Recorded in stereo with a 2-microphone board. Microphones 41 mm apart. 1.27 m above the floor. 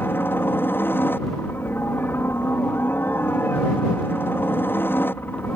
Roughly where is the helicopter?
Left.